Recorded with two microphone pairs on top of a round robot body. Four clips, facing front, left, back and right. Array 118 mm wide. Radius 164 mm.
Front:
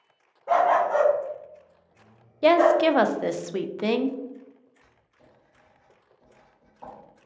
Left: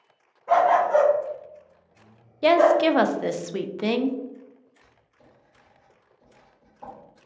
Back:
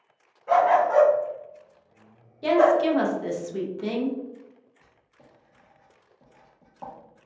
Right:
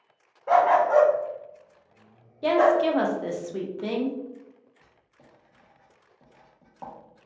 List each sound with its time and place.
0.5 s a dog barking: 75° right, 0.5 m; by 2.8 s 130° right, 1.9 m
2.4 s a woman speaking: 20° left, 0.5 m
4.8 s writing: 130° right, 1.5 m